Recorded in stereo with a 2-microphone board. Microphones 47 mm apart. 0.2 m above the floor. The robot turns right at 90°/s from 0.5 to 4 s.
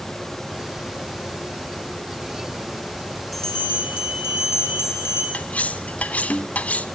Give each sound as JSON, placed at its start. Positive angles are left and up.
{"t": 3.3, "sound": "a bell", "azimuth_deg": 0, "distance_m": 4.5}
{"t": 5.3, "sound": "cutlery clinking", "side_deg": 35, "distance_m": 0.7}